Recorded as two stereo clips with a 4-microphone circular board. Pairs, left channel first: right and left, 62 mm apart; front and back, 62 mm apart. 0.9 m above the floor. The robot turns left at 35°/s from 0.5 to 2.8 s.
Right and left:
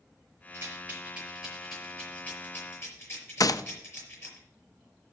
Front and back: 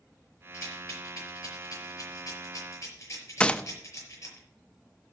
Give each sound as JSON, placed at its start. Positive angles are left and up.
{"t": 0.5, "sound": "a rattle", "azimuth_deg": 40, "distance_m": 5.0}
{"t": 3.4, "sound": "a gunshot", "azimuth_deg": -75, "distance_m": 0.5}